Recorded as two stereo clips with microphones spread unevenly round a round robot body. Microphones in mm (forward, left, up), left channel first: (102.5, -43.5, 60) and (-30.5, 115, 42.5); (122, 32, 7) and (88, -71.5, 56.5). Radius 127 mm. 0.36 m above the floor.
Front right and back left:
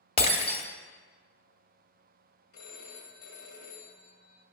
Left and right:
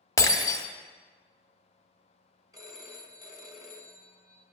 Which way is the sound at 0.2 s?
15° left.